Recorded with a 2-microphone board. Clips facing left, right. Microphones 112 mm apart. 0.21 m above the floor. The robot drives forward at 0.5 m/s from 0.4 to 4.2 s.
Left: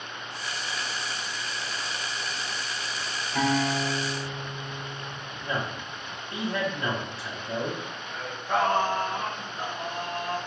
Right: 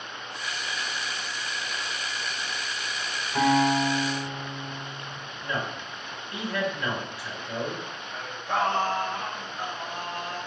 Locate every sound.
3.4 s a guitar: 25° right (ahead or behind), 1.6 m; by 5.2 s 20° right (ahead or behind), 1.9 m
5.4 s a man speaking: 30° left (ahead or behind), 1.1 m
8.1 s singing: centre (ahead or behind), 1.5 m